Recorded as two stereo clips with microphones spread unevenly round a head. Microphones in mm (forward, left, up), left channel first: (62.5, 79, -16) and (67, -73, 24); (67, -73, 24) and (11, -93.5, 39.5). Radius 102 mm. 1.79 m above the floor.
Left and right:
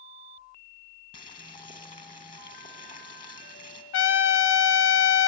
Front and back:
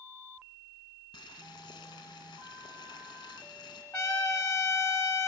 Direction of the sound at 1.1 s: 50° left.